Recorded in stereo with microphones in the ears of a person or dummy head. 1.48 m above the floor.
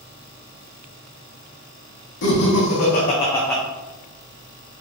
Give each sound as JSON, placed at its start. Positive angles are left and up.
{"t": 2.2, "sound": "laughter", "side_deg": 75, "distance_m": 1.1}